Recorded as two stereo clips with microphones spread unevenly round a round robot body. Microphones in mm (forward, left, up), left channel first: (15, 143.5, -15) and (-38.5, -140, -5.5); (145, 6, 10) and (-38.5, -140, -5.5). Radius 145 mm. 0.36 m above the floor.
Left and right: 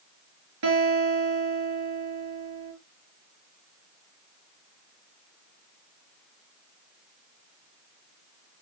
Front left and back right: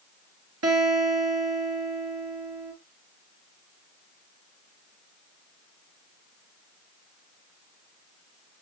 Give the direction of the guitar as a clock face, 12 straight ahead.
4 o'clock.